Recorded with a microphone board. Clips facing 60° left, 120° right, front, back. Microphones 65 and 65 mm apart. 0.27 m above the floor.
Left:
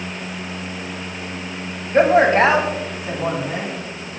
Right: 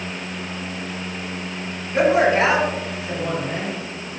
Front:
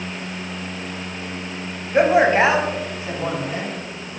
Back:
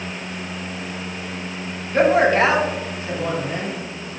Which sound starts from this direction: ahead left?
A man speaking, at 1.9 s.